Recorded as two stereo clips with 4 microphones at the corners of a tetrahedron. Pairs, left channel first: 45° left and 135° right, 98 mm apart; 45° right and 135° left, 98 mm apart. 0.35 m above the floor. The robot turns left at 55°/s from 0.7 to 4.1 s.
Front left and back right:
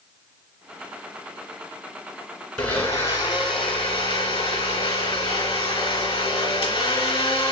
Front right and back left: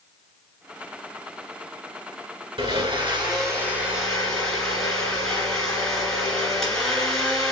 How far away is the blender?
About 2.5 m.